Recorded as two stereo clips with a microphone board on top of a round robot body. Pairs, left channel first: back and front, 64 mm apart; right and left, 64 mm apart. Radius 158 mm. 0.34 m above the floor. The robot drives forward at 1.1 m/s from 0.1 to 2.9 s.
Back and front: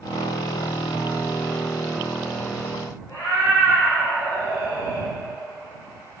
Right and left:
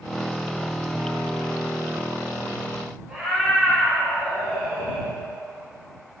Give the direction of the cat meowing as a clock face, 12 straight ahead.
6 o'clock.